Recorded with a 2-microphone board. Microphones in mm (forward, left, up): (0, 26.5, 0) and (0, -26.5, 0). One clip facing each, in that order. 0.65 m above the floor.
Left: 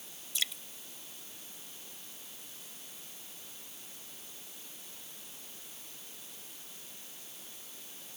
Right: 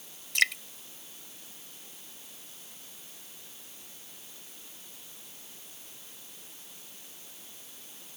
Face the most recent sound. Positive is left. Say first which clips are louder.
# right 12 dB
turn(degrees=-75)  # may be behind; listen again after turning